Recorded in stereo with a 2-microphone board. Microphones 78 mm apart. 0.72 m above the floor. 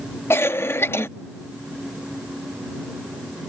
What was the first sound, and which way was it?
A cough, 30° left (ahead or behind).